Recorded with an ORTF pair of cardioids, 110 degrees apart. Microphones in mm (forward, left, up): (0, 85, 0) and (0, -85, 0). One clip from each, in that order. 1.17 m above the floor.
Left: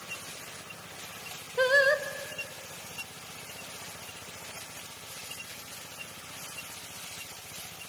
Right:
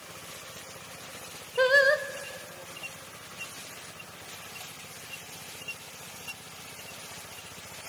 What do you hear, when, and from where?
1.6 s singing: 10° right, 0.7 m